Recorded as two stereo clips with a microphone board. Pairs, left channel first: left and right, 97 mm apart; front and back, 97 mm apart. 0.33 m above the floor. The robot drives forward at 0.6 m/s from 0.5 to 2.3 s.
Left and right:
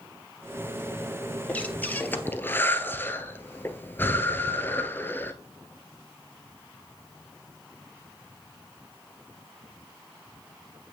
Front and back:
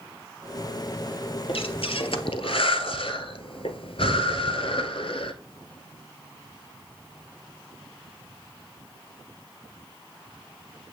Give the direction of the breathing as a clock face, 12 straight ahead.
12 o'clock.